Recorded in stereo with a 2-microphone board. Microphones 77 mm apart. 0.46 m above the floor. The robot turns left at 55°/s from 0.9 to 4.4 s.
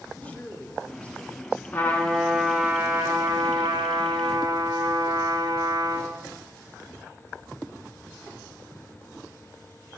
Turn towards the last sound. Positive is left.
turn(degrees=-115)